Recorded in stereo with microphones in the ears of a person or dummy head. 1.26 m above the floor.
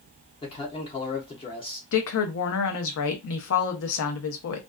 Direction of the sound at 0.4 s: 25° left (ahead or behind).